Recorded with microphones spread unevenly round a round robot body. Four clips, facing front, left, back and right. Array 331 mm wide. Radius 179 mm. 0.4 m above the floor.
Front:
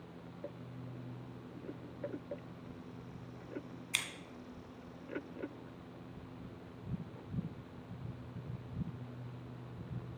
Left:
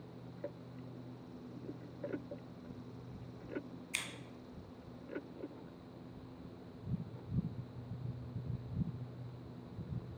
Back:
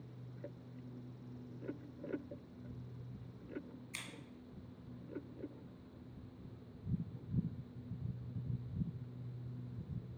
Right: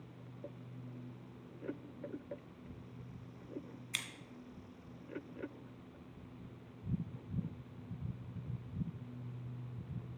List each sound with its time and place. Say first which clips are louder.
3.9 s scissors: left 1 dB, front 12 dB; 20° right, 2 m